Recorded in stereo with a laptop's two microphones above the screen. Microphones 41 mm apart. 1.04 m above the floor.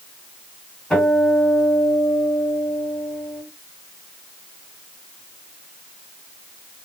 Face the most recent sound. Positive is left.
turn(degrees=15)  # may be behind; listen again after turning